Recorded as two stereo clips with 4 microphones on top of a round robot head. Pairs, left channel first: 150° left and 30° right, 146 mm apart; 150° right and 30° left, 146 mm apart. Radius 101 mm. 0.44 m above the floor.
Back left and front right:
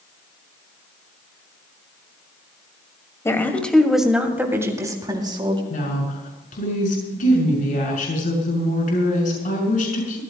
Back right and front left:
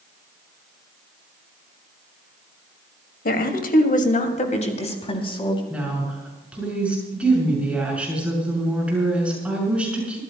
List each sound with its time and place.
3.2 s a woman speaking: 140° right, 2.5 m; by 5.6 s 90° right, 3.5 m
5.7 s a woman speaking: 115° left, 6.5 m